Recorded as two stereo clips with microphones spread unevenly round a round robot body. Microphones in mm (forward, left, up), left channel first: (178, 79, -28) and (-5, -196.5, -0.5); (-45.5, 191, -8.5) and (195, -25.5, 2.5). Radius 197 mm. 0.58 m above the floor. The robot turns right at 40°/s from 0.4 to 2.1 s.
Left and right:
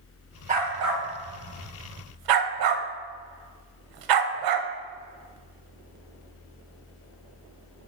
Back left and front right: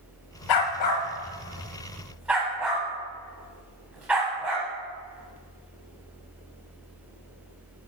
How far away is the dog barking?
About 0.7 m.